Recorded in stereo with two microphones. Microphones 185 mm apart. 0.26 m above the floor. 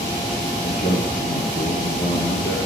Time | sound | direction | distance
0.6 | a man speaking | 60° left (ahead or behind) | 3.5 m